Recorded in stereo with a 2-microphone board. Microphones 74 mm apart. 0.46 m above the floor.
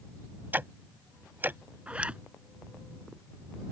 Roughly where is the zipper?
Centre.